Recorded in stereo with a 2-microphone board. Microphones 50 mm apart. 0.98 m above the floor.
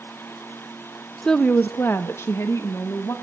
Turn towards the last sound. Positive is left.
turn(degrees=75)  # may be behind; listen again after turning